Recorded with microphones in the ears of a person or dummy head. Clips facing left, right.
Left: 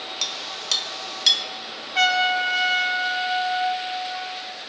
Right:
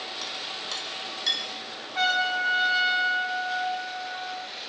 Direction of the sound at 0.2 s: 40° left (ahead or behind).